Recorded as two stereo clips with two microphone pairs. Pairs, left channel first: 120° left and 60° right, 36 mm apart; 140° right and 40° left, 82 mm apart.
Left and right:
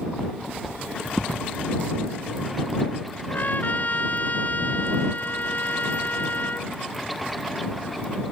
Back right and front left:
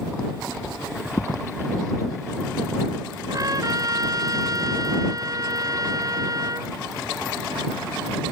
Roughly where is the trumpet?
Left.